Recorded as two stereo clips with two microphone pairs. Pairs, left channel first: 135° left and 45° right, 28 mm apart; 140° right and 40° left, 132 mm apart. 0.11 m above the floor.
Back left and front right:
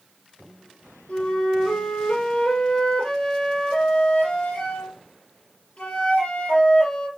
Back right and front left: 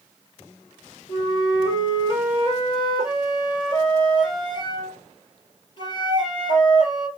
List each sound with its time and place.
1.1 s a flute: 175° left, 2.5 m